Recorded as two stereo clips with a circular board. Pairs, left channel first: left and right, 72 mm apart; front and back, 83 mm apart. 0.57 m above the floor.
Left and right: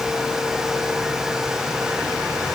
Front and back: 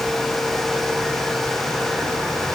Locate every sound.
Only background noise.